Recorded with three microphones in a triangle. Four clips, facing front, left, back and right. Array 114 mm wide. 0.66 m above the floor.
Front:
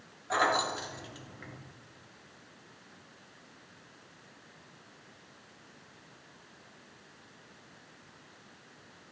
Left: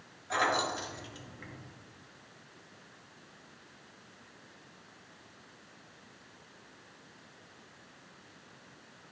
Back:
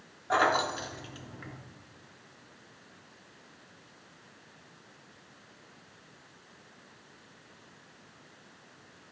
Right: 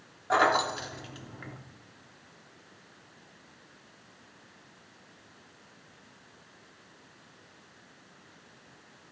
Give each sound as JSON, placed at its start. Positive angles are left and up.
{"t": 0.3, "sound": "keys jangling", "azimuth_deg": -115, "distance_m": 0.8}